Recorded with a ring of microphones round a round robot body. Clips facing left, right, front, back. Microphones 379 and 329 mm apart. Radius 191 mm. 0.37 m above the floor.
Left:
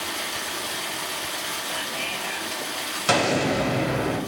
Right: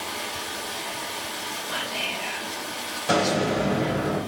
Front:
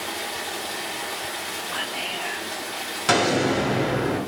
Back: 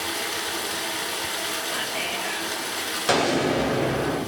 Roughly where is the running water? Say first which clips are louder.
Left 1 dB, back 1 dB; behind left.